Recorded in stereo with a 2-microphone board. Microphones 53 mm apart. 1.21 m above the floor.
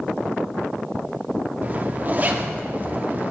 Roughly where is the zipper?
Right.